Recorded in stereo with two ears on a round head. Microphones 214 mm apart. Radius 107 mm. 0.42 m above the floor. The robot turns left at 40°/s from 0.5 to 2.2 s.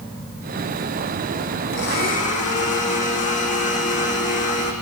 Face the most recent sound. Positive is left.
turn(degrees=30)  # may be behind; listen again after turning